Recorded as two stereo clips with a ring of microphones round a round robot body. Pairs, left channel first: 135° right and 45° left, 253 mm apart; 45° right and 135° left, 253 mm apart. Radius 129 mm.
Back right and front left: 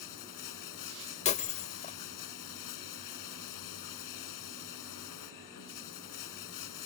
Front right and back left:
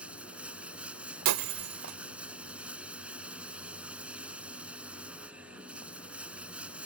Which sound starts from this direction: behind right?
Running water, at 0.0 s.